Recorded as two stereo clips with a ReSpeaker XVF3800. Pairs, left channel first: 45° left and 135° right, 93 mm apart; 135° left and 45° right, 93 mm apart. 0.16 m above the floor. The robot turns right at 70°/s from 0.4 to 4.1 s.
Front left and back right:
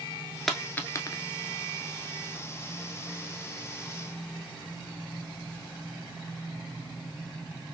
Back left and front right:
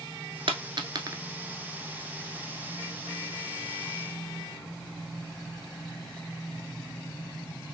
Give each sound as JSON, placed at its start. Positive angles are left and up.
{"t": 0.5, "sound": "a dropped coin", "azimuth_deg": -45, "distance_m": 0.7}